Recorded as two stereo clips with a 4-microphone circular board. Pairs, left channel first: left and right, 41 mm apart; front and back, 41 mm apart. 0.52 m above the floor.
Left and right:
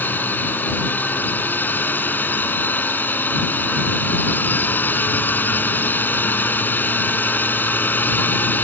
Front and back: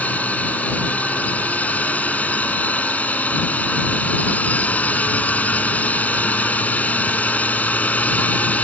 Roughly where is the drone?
Ahead left.